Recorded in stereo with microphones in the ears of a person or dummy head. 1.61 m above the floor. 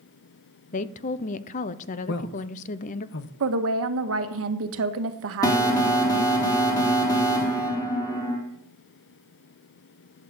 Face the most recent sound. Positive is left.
turn(degrees=15)  # may be behind; listen again after turning